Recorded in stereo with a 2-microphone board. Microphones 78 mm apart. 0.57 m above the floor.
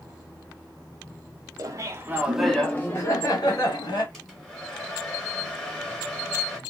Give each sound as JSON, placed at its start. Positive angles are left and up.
{"t": 1.6, "sound": "laughter", "side_deg": -50, "distance_m": 0.8}
{"t": 4.1, "sound": "a hair dryer", "side_deg": 5, "distance_m": 1.0}